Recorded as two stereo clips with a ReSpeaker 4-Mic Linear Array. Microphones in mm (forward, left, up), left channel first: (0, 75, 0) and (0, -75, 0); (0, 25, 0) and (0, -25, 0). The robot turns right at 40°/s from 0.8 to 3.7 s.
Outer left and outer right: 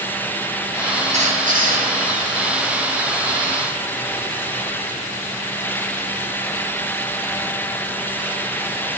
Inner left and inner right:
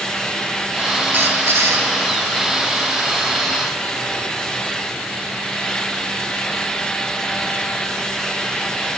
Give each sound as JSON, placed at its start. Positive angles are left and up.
{"t": 1.1, "sound": "a squeak", "side_deg": -50, "distance_m": 3.0}